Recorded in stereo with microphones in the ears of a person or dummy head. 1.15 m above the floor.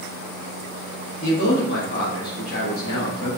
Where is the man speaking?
60° left (ahead or behind), 1.3 m.